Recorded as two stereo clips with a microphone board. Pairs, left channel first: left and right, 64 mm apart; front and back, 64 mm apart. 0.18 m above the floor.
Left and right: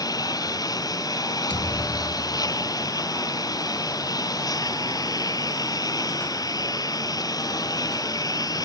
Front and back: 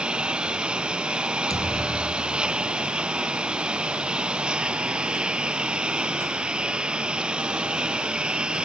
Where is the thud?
20° left.